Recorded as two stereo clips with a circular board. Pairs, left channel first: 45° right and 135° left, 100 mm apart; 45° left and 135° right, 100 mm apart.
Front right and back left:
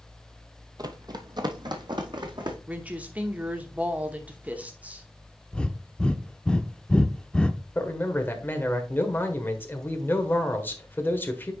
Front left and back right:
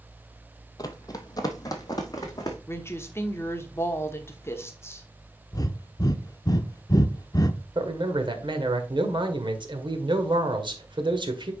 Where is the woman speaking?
75° left, 1.0 m.